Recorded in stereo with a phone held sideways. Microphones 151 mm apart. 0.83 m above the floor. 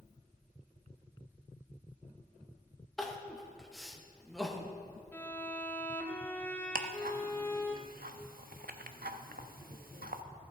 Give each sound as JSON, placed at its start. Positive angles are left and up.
{"t": 3.0, "sound": "crying", "side_deg": 0, "distance_m": 0.7}
{"t": 5.1, "sound": "a violin", "side_deg": 15, "distance_m": 0.6}
{"t": 6.8, "sound": "ticking", "side_deg": -75, "distance_m": 0.5}